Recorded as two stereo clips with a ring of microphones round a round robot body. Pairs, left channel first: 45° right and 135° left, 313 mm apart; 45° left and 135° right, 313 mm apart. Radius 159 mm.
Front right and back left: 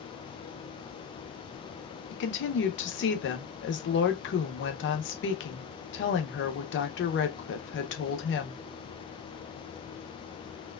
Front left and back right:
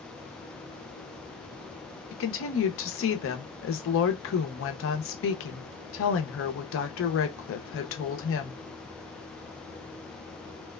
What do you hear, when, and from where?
2.1 s a woman speaking: 5° left, 0.7 m